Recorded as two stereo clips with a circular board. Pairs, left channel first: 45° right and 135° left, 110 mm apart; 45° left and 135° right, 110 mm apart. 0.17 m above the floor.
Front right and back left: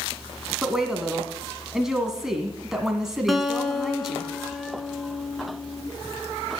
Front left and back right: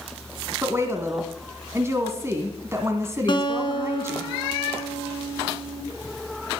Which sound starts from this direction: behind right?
A woman speaking, at 0.6 s.